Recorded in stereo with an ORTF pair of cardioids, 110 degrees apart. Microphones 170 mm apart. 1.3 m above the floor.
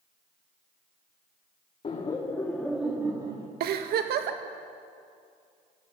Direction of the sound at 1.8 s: 35° left.